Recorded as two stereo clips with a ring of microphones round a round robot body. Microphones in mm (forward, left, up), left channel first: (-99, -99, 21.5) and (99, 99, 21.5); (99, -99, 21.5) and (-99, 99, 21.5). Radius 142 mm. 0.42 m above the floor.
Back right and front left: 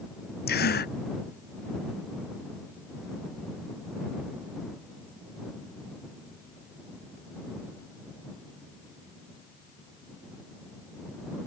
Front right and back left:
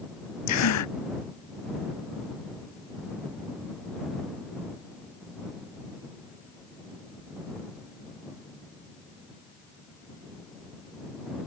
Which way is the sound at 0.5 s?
75° right.